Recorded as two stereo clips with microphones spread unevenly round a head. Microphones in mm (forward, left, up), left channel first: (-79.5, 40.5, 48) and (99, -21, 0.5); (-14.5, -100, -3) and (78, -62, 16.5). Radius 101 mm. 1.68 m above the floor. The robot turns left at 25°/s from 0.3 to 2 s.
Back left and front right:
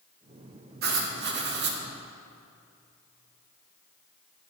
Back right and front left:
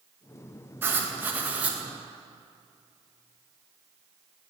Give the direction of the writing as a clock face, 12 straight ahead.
12 o'clock.